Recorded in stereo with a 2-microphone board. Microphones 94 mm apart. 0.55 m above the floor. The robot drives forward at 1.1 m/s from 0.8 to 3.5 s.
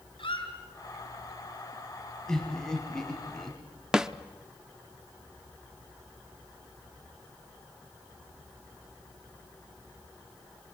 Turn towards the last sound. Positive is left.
turn(degrees=-10)  # may be behind; listen again after turning